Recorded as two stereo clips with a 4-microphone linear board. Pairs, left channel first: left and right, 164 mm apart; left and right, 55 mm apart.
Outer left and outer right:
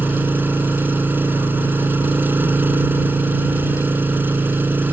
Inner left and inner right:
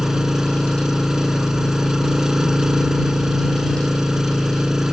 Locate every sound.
0.0 s an engine running: 10° right (ahead or behind)